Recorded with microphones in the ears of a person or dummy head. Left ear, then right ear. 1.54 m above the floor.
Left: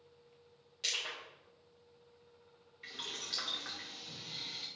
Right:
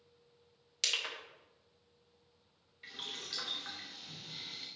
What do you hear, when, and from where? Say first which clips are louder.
0.8 s crushing: right 2 dB; 70° right (ahead or behind), 2.5 m
2.8 s boiling: left 1 dB; 5° left (ahead or behind), 1.0 m